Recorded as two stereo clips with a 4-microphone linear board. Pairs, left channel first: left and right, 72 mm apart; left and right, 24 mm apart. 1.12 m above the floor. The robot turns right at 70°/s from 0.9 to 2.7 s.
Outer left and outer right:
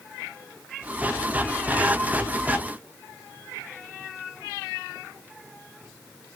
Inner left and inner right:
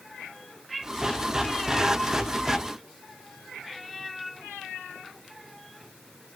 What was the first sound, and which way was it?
Only background noise.